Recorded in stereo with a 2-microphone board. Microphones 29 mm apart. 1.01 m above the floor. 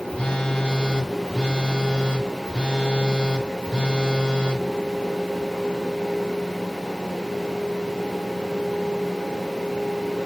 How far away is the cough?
No cough in this recording.